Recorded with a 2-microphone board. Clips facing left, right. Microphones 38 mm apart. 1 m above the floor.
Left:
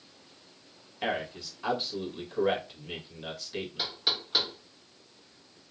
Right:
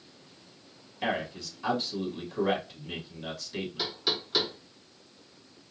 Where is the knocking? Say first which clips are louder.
Even; 15° left (ahead or behind), 1.7 m.